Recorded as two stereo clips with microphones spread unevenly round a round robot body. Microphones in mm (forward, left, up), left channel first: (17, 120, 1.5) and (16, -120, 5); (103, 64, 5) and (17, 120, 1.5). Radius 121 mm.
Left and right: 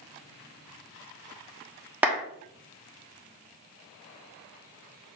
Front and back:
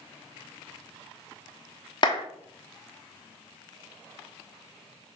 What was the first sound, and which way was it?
A clap, 10° right.